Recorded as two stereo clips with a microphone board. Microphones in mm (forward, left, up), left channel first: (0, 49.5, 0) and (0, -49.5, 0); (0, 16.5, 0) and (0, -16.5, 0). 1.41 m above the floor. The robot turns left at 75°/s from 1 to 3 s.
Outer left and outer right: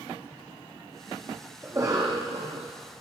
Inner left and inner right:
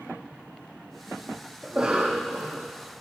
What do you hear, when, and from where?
1.6 s a cough: 15° right, 0.7 m; by 2.7 s 95° right, 0.7 m